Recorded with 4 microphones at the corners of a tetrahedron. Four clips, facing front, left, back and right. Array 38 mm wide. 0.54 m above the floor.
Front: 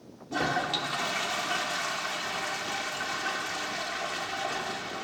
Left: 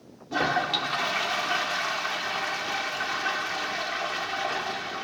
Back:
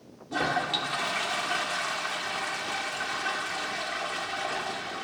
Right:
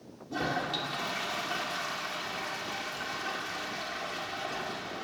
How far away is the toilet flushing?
About 1.6 m.